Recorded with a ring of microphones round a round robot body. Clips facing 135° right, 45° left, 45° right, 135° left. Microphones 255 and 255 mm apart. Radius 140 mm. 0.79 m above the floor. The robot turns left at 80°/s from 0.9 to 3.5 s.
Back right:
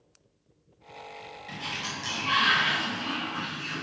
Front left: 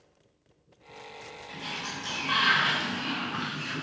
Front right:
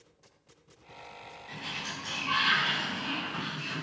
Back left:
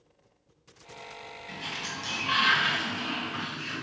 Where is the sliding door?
145° right, 4 m; by 3.8 s 50° left, 4 m.